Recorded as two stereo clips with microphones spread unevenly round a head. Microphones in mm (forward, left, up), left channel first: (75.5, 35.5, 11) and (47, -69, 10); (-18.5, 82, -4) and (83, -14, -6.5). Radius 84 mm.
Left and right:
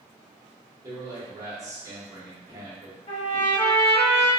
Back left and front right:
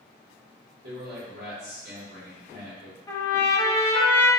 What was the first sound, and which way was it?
A man speaking, 45° right.